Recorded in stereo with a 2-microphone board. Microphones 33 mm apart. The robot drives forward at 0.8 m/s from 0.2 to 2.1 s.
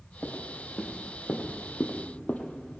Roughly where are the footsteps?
Left.